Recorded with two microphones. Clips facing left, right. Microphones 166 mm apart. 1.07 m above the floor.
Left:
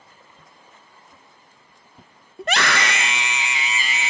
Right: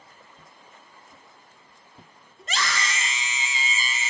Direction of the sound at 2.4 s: 70° left (ahead or behind).